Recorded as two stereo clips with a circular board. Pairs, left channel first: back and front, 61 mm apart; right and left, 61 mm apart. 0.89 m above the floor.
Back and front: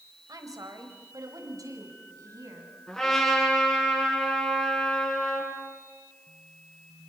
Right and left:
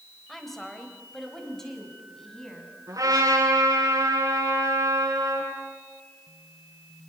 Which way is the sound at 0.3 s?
5° right.